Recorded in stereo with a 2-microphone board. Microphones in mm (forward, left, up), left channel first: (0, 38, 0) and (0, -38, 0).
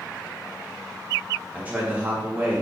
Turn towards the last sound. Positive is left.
turn(degrees=-20)  # may be behind; listen again after turning